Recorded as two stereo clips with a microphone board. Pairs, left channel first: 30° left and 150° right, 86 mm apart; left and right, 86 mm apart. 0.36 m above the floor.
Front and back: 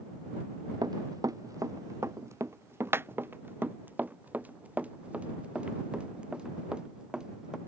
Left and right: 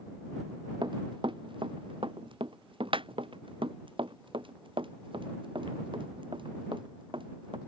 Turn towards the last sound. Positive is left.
turn(degrees=-70)